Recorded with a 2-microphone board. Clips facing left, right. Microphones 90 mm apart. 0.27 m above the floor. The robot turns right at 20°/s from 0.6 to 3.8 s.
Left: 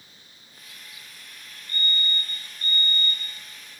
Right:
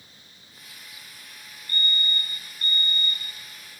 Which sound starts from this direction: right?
A fire alarm, at 1.7 s.